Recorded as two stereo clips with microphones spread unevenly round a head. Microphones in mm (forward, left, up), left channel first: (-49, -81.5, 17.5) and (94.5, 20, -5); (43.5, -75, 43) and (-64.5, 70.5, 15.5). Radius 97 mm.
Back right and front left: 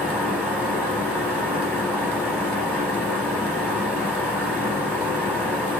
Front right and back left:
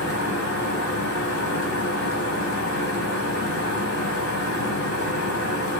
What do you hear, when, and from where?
0.0 s a fan: 65° right, 4 m